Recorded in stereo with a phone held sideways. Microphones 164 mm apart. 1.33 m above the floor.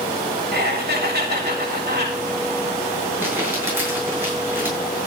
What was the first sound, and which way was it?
Laughter, 85° right.